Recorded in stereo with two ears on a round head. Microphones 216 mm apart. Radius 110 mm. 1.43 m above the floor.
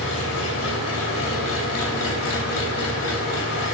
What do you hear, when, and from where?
0.0 s an engine running: 70° left (ahead or behind), 3 m